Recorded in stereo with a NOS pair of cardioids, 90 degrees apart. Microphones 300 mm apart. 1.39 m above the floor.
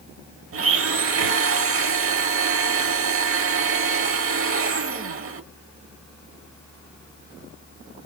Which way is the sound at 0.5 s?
50° right.